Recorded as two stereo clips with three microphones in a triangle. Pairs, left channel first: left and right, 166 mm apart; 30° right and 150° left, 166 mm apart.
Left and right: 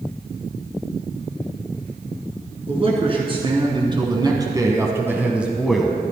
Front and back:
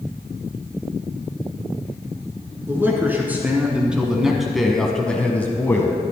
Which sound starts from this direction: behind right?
A man speaking, at 2.7 s.